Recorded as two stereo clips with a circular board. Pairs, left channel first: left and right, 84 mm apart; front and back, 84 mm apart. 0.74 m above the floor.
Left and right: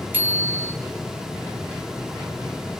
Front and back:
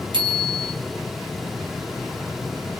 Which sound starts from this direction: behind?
A bicycle bell, at 0.1 s.